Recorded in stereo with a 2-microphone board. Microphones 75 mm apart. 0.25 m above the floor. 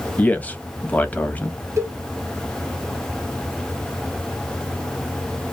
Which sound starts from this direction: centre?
A man speaking, at 0.2 s.